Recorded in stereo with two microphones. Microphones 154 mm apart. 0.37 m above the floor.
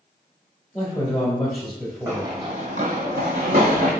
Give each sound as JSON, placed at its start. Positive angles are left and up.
{"t": 0.7, "sound": "a man speaking", "side_deg": 5, "distance_m": 1.0}
{"t": 2.1, "sound": "running footsteps", "side_deg": -20, "distance_m": 0.8}